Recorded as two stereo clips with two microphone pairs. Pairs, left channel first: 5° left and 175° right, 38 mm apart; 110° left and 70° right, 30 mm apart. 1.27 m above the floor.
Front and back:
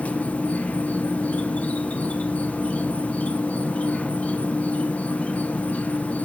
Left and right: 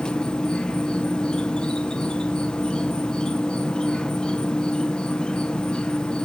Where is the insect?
50° left, 1.0 m.